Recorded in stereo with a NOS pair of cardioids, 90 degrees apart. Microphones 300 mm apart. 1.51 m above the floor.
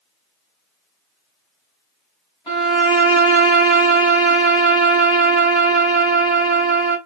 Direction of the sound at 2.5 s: 15° left.